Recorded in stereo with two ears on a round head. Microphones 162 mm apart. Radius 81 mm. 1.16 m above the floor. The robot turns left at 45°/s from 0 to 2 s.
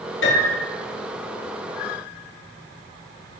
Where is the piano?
80° left, 4 m; by 0.7 s 65° left (ahead or behind), 4 m.